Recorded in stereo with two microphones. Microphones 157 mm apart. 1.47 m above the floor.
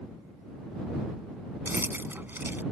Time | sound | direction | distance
1.6 | keys jangling | 15° right (ahead or behind) | ?